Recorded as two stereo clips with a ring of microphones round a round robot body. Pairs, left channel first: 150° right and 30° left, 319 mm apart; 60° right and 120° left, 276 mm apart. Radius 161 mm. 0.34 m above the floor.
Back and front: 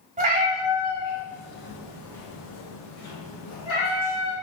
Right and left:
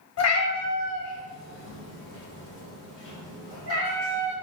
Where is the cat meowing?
35° right, 1.0 m; by 4.3 s 125° right, 3 m.